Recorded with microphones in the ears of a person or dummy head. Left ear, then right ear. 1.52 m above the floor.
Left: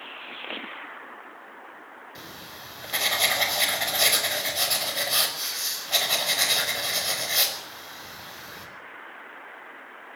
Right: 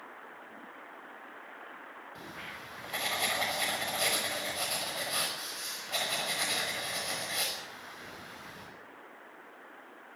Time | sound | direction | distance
2.1 | writing | 20° left (ahead or behind) | 5.5 m